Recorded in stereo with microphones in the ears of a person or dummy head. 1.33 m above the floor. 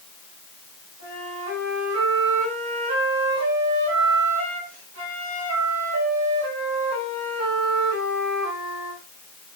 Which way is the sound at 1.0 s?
70° right (ahead or behind).